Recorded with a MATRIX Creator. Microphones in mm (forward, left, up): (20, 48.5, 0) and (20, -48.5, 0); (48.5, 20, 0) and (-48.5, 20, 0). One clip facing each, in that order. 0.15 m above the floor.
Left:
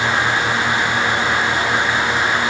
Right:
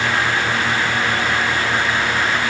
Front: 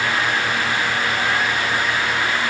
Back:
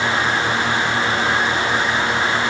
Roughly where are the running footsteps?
I don't hear running footsteps.